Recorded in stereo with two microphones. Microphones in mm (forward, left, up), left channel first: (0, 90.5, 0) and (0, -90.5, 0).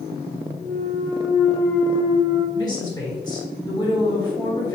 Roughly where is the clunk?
Centre.